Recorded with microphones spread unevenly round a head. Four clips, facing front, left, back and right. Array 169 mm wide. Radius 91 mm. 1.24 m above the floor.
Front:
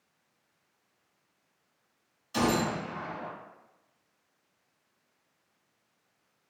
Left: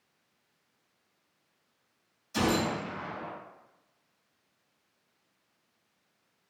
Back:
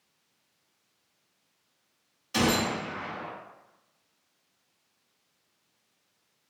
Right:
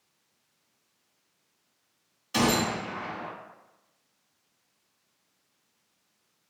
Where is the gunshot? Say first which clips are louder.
Right 3 dB, back 1 dB; 120° right, 1.1 m.